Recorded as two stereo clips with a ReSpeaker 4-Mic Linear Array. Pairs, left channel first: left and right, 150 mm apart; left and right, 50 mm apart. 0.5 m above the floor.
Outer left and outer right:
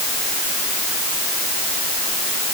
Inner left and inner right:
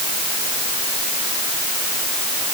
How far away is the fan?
I don't hear a fan.